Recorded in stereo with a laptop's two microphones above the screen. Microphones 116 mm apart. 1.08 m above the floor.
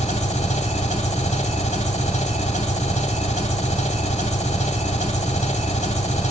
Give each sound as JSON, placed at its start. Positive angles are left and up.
{"t": 0.0, "sound": "an engine running", "side_deg": 85, "distance_m": 2.0}